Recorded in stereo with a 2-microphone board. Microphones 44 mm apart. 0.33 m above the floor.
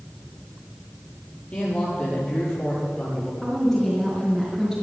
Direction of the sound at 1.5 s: 25° left (ahead or behind).